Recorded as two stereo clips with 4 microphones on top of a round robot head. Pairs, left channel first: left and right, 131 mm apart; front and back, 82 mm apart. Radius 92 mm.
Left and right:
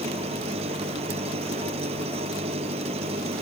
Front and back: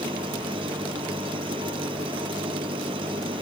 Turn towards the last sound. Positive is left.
turn(degrees=-140)